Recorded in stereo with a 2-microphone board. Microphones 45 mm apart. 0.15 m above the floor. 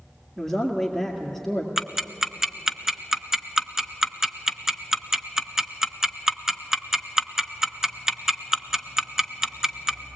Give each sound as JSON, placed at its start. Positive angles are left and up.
{"t": 0.4, "sound": "a man speaking", "side_deg": 0, "distance_m": 2.0}
{"t": 1.8, "sound": "ticking", "side_deg": -10, "distance_m": 0.6}